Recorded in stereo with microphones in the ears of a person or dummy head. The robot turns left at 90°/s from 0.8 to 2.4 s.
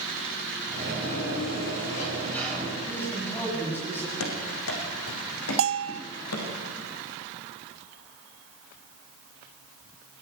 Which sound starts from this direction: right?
A bell, at 5.6 s.